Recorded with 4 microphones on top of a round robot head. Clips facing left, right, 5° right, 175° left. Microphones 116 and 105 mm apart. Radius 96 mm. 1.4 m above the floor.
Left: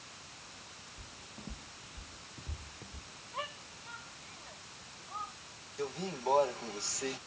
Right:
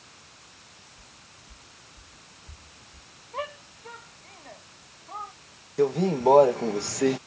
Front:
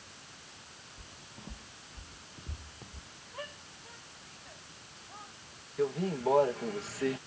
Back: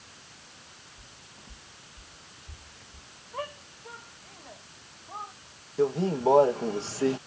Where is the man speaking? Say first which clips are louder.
Right 15 dB, back 6 dB; 115° right.